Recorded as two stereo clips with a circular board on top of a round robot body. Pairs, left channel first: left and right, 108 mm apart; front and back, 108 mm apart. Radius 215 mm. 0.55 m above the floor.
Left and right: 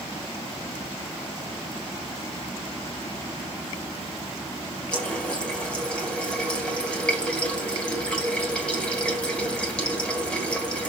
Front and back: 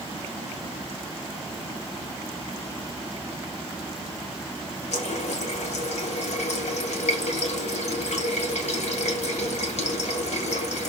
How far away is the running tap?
About 2.5 m.